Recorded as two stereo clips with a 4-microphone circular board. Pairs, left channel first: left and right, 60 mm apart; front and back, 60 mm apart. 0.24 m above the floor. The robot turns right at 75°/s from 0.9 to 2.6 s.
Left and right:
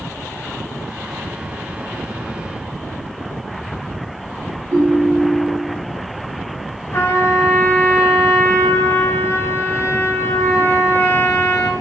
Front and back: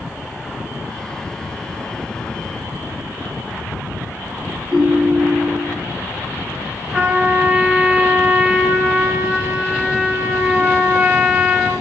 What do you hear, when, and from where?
4.7 s a ringtone: 100° right, 1.1 m
6.9 s a trumpet: 120° left, 1.5 m